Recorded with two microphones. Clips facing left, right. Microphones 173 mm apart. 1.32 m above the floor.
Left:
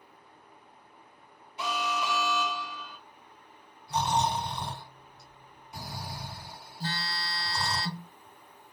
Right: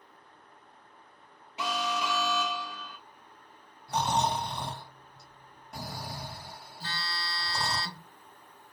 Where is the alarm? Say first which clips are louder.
Even; 85° right, 1.0 m.